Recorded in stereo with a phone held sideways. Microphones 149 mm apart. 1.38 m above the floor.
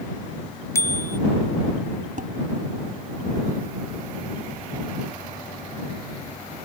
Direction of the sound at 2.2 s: 65° right (ahead or behind).